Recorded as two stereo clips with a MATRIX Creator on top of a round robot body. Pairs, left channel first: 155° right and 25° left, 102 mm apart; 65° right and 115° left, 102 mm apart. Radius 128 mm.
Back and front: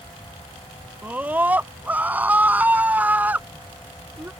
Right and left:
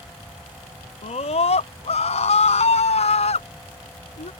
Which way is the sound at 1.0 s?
55° right.